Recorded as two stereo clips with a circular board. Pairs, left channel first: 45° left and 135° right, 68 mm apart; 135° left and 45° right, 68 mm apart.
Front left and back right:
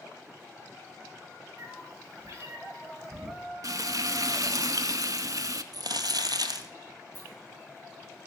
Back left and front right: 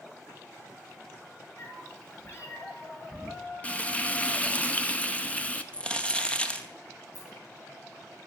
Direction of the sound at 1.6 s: Straight behind.